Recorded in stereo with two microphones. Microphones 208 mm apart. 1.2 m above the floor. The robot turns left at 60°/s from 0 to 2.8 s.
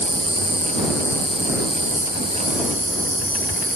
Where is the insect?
80° left; by 3.8 s 90° right.